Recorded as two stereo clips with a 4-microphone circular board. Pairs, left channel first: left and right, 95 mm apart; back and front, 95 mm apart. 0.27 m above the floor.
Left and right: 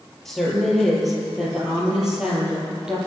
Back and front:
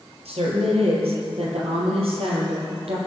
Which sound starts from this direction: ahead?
A woman speaking, at 0.2 s.